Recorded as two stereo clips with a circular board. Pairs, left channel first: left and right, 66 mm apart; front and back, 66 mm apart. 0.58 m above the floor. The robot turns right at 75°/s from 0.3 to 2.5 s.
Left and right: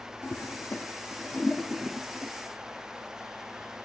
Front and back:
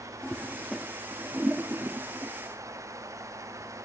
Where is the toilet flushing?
65° left, 0.7 m; by 2.3 s 145° right, 0.7 m.